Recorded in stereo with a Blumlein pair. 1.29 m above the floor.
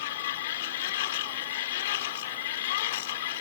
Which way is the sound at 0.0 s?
55° left.